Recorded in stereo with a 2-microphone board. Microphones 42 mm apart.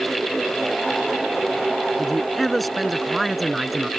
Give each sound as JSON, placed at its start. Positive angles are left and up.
{"t": 2.0, "sound": "a man speaking", "side_deg": 5}